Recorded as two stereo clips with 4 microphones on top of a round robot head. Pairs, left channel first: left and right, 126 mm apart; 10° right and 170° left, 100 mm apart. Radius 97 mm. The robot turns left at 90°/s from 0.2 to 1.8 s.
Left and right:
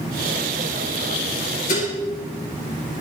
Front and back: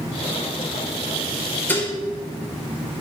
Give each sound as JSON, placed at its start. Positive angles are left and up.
{"t": 1.7, "sound": "dishes clattering", "azimuth_deg": 60, "distance_m": 3.0}